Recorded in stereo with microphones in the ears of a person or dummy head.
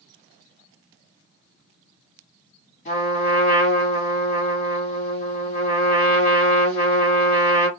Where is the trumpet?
50° left (ahead or behind), 1.3 m.